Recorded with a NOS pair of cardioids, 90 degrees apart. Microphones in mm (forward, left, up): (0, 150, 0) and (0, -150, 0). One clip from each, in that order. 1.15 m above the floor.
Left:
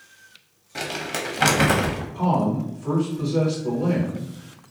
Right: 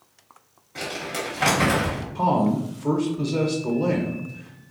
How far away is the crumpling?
About 1.1 m.